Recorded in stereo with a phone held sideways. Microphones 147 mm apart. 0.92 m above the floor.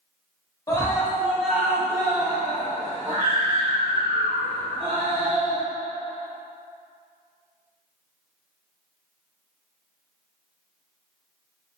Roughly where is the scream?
Left.